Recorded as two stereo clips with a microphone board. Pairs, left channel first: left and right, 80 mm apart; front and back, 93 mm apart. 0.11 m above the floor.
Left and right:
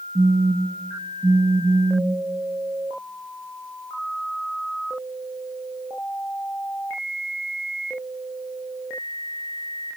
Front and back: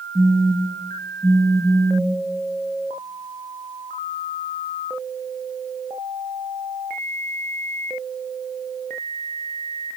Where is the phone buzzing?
120° right, 2.5 m.